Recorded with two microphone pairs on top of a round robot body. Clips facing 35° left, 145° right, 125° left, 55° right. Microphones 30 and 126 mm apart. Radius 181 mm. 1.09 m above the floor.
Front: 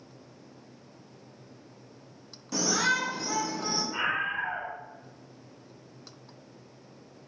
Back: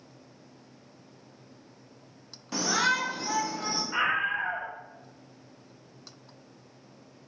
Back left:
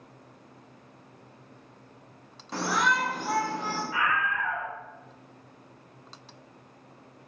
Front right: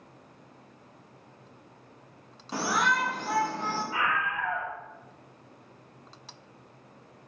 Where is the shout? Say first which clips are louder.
Back 1 dB, back left 1 dB; 115° right, 0.7 m; by 3.8 s 155° right, 1.1 m.